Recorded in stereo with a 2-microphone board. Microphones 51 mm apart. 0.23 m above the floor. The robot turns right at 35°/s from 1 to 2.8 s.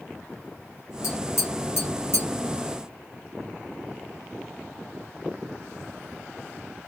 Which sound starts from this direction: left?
Tapping, at 1.0 s.